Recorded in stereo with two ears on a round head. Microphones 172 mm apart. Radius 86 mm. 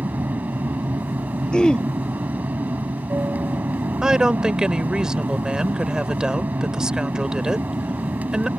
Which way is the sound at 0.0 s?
10° right (ahead or behind).